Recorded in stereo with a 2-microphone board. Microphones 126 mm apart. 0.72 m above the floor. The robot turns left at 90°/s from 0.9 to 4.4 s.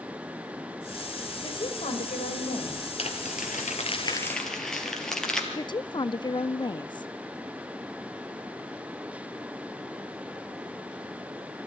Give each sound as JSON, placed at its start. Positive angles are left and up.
{"t": 1.4, "sound": "a woman speaking", "azimuth_deg": 155, "distance_m": 4.0}
{"t": 3.0, "sound": "crumpling", "azimuth_deg": 130, "distance_m": 3.5}
{"t": 5.5, "sound": "a woman speaking", "side_deg": 35, "distance_m": 0.7}